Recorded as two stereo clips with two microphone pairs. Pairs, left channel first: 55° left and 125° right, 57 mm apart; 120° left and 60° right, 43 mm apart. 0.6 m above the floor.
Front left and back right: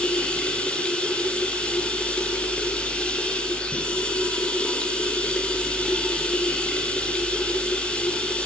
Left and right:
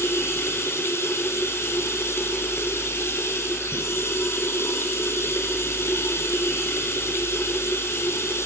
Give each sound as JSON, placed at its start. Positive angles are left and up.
{"t": 0.0, "sound": "running water", "azimuth_deg": 125, "distance_m": 5.0}